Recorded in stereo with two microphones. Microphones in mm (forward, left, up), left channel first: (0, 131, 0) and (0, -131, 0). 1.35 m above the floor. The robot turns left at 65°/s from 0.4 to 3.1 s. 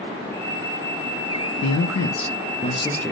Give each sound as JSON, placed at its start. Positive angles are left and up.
{"t": 1.6, "sound": "a man speaking", "azimuth_deg": 95, "distance_m": 0.6}